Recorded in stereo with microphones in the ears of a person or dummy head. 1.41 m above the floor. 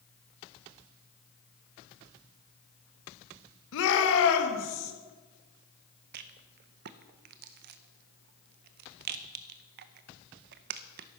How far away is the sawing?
I don't hear sawing.